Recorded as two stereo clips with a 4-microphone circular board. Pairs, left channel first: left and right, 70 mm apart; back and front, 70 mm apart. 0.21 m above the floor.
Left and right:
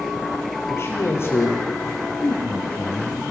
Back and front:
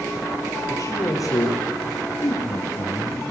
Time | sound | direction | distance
0.7 | a man speaking | 140° left | 5.5 m